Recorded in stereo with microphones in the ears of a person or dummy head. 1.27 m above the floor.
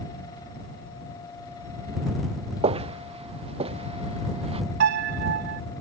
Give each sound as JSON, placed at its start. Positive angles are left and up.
{"t": 2.6, "sound": "footsteps", "side_deg": -30}
{"t": 4.8, "sound": "a piano", "side_deg": -60}